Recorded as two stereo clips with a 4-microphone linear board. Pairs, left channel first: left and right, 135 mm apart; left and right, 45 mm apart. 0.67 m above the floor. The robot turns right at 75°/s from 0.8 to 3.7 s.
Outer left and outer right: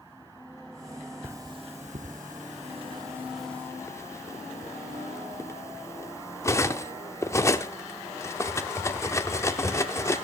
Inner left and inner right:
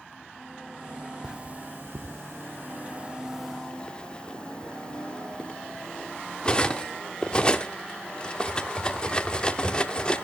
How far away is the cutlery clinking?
About 0.9 m.